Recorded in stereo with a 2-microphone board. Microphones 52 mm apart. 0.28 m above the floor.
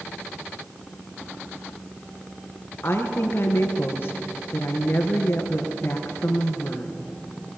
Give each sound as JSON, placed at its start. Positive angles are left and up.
{"t": 2.8, "sound": "a woman speaking", "side_deg": 45, "distance_m": 3.5}